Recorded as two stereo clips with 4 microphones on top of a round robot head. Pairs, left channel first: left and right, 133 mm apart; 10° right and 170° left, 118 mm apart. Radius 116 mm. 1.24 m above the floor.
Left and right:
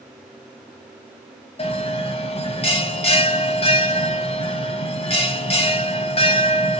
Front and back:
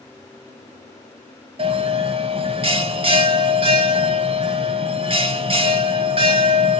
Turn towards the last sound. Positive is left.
turn(degrees=130)